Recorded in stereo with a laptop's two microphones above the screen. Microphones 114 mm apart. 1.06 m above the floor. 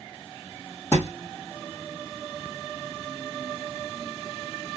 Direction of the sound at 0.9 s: 15° left (ahead or behind).